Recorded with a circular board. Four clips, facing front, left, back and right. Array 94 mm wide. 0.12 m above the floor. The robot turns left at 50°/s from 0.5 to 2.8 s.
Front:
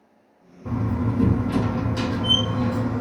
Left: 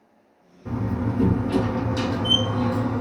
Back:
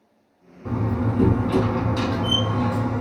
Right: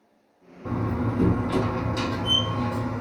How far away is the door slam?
About 2.5 m.